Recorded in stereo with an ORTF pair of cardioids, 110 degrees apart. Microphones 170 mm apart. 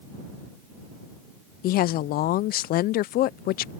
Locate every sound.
1.6 s a woman speaking: 65° left